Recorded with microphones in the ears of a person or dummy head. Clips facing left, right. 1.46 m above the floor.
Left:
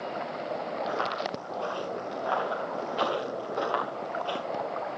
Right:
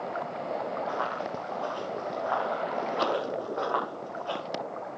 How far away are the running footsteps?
About 7.5 m.